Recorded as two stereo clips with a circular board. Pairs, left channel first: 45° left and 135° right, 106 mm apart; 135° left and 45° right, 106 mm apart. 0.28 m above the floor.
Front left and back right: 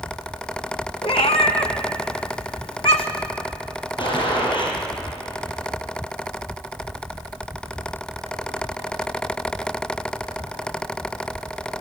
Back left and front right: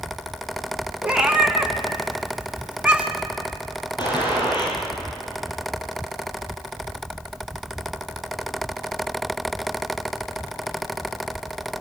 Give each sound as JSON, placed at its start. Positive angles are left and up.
{"t": 1.0, "sound": "a cat meowing", "azimuth_deg": 30, "distance_m": 1.5}
{"t": 4.0, "sound": "a gunshot", "azimuth_deg": 90, "distance_m": 5.5}